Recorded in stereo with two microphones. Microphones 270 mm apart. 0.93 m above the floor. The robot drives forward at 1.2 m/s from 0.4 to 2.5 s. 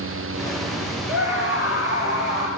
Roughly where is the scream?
Right.